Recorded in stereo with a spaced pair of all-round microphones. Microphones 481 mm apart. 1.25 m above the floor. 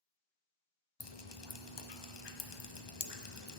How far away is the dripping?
About 0.7 m.